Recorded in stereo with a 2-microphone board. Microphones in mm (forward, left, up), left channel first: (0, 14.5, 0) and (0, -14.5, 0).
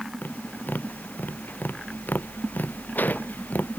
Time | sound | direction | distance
0.2 | tapping | 85° left | ?